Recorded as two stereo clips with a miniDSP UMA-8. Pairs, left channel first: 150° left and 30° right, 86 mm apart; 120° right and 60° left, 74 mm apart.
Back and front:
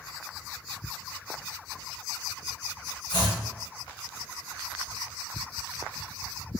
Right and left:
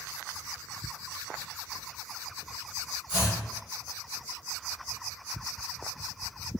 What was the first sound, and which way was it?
Chopping, 130° left.